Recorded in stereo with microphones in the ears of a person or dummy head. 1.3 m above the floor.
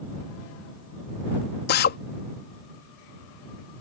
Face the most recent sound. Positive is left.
turn(degrees=50)  # may be behind; listen again after turning